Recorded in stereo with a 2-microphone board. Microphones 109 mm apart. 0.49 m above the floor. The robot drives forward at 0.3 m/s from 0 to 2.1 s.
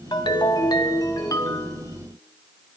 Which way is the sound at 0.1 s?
45° left (ahead or behind).